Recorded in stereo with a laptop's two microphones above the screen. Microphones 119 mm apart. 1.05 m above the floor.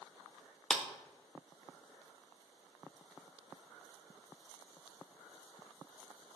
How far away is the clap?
About 0.7 m.